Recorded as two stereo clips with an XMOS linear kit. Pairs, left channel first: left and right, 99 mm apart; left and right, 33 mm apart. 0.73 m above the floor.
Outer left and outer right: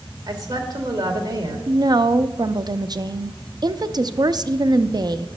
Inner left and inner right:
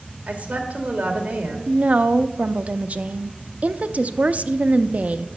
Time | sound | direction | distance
0.3 | a woman speaking | 40° right (ahead or behind) | 2 m
1.7 | a woman speaking | 45° right (ahead or behind) | 0.5 m